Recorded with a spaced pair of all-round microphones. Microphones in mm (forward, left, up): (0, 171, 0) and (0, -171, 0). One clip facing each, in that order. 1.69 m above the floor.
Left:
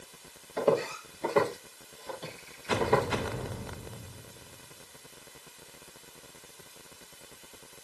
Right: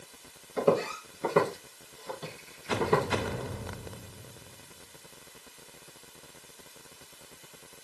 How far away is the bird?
I don't hear a bird.